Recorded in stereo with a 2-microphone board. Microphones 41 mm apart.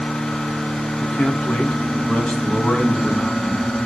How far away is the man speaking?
About 3 m.